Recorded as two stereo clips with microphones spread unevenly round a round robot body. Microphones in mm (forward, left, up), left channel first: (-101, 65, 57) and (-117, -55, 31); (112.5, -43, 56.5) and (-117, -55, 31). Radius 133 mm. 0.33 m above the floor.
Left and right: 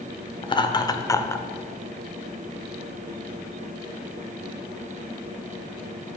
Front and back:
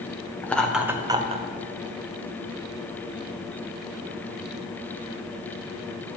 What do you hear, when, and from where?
0.4 s laughter: 90° left, 1.0 m; by 1.4 s 160° left, 1.1 m